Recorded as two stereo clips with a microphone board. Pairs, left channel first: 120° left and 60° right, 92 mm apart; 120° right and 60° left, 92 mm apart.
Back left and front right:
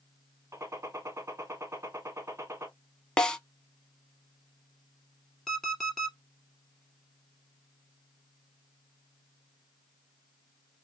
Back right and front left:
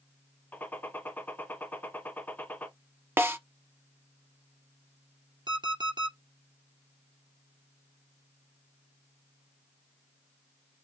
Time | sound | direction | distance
0.5 | a gunshot | 75° right | 1.3 m
3.2 | a snare drum | 50° left | 0.7 m
5.5 | an alarm clock | 40° left | 1.7 m